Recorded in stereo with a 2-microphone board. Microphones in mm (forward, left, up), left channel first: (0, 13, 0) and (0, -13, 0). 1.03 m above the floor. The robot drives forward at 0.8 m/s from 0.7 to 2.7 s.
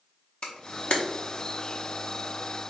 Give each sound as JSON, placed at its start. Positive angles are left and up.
{"t": 0.4, "sound": "a camera shutter", "side_deg": 45, "distance_m": 0.7}